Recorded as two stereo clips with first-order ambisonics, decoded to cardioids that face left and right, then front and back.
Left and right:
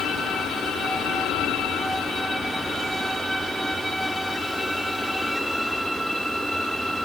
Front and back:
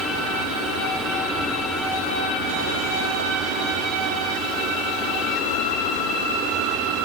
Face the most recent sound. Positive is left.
No sound to turn to.